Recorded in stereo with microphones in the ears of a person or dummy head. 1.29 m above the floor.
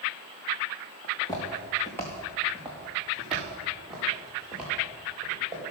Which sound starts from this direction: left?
Footsteps, at 1.0 s.